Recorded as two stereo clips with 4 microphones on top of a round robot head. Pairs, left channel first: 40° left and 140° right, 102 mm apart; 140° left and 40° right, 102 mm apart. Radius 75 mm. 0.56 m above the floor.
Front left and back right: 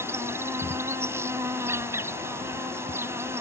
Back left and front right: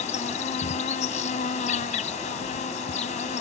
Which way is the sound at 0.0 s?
150° left.